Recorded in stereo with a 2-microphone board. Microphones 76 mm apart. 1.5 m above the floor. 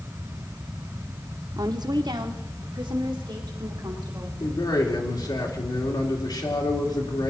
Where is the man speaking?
70° left (ahead or behind), 2.5 m.